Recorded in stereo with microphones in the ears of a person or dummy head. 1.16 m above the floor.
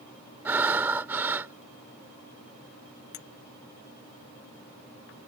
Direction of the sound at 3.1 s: 50° left (ahead or behind).